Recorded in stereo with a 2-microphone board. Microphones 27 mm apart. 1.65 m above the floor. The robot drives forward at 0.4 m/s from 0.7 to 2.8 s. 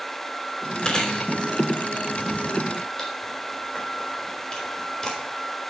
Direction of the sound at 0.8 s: 30° left (ahead or behind).